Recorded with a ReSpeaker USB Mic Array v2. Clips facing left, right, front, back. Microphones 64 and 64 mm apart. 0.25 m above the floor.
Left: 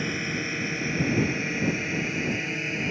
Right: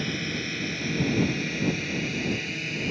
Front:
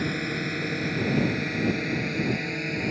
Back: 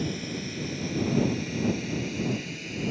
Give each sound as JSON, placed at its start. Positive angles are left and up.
{"t": 0.0, "sound": "a drone", "azimuth_deg": 25}